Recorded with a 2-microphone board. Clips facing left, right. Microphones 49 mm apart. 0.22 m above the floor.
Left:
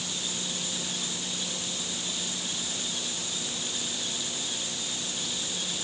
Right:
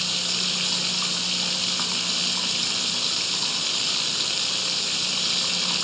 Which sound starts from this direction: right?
Running water, at 0.0 s.